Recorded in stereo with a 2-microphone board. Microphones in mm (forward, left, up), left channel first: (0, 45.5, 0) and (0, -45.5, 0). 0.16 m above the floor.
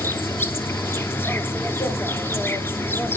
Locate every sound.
0.0 s an insect: 25° left (ahead or behind), 0.8 m